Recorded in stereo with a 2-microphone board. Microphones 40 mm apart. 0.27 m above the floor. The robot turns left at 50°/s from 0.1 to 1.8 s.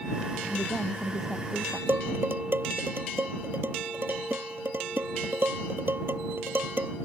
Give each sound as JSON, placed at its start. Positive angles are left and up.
{"t": 0.5, "sound": "a woman speaking", "azimuth_deg": 40}
{"t": 1.9, "sound": "dishes clattering", "side_deg": -60}